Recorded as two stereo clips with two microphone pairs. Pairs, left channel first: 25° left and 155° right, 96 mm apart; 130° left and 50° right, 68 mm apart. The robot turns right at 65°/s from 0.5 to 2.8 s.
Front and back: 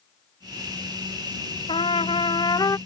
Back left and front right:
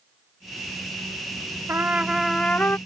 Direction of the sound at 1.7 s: 5° left.